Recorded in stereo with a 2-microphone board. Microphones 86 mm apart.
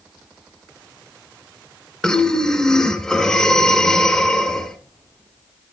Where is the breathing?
10° left (ahead or behind), 1.8 m.